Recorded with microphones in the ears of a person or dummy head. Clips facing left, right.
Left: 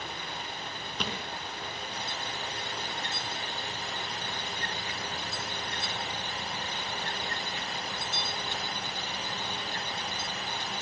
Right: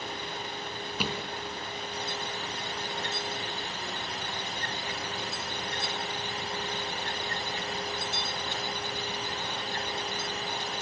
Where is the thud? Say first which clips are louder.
Right 3 dB; 5° right (ahead or behind), 4 m.